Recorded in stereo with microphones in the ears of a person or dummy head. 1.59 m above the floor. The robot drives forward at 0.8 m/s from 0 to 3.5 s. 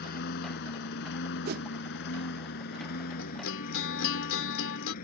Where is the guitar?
80° left; by 5.0 s 85° left.